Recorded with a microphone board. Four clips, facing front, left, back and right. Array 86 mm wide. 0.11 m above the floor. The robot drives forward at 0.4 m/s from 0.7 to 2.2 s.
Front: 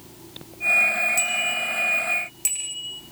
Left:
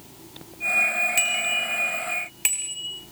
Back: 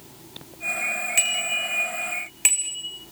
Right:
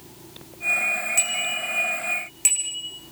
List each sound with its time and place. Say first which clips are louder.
1.2 s a bicycle bell: left 2 dB, front 2 dB; 155° left, 4.5 m